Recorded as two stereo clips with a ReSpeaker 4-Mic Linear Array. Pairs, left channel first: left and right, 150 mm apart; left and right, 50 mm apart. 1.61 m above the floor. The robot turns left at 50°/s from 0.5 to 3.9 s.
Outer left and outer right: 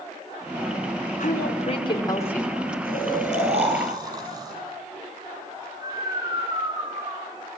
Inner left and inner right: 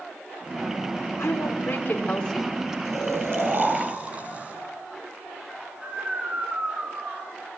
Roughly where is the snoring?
Right.